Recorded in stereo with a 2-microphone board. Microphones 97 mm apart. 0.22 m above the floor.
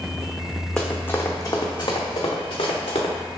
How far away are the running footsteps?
About 1.0 m.